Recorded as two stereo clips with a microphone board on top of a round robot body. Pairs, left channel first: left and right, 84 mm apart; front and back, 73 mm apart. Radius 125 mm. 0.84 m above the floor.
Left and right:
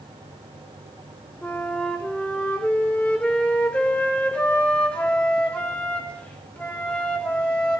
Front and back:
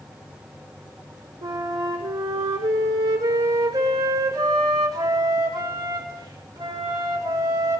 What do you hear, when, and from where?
1.4 s a flute: 160° left, 3.5 m